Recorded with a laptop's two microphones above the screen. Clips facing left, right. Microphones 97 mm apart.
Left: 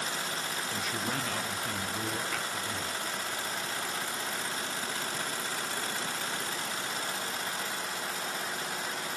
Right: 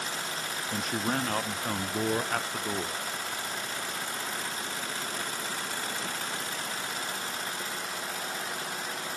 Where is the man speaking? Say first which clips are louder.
Right 6 dB; 45° right (ahead or behind), 0.6 m.